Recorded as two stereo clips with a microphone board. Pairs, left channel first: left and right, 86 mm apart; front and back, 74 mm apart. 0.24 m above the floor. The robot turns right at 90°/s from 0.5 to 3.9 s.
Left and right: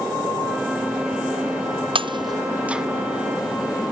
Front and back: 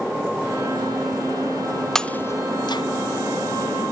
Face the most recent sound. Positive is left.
turn(degrees=90)